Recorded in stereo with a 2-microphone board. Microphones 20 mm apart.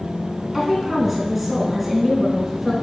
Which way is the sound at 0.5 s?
5° right (ahead or behind).